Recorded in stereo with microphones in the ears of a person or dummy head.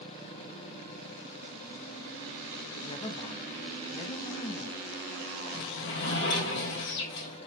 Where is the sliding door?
65° left (ahead or behind), 1.9 m.